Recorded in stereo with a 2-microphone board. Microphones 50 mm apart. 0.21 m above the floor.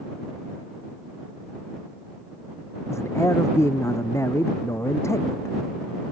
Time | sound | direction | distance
2.9 | a man speaking | 70° left (ahead or behind) | ?